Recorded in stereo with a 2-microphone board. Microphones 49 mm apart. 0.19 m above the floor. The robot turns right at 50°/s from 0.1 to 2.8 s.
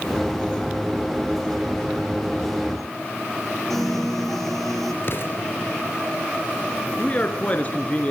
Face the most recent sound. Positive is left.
turn(degrees=30)  # may be behind; listen again after turning